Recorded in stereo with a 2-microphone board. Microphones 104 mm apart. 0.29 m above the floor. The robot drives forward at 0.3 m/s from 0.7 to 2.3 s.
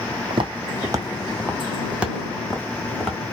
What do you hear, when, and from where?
0.3 s footsteps: 60° right (ahead or behind), 0.6 m; by 3.2 s 5° left (ahead or behind), 1.4 m